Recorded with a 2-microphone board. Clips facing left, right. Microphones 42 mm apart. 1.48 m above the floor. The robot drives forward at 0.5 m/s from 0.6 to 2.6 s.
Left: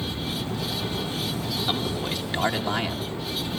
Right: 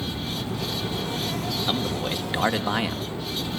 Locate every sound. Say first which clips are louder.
1.7 s a man speaking: right 1 dB; 15° right (ahead or behind), 2 m